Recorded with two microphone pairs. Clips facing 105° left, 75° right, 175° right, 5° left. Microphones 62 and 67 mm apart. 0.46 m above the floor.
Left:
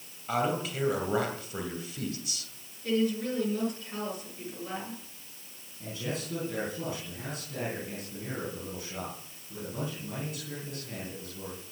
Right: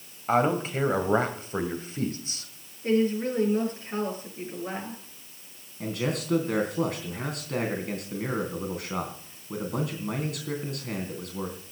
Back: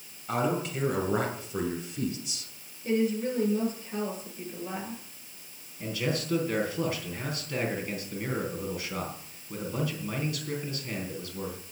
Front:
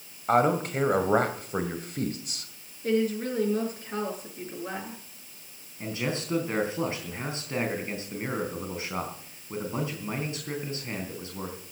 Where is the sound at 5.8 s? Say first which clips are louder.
Right 6 dB, even; 60° right, 3.5 m.